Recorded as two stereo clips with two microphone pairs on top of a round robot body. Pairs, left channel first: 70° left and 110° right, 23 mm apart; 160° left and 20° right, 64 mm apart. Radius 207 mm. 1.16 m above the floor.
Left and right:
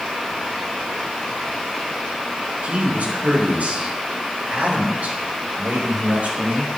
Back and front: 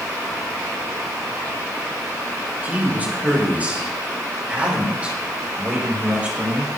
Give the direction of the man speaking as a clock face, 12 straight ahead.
3 o'clock.